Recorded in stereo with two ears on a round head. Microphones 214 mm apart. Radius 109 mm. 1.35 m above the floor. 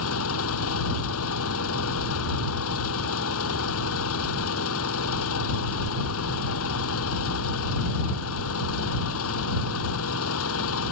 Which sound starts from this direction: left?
An engine running, at 0.0 s.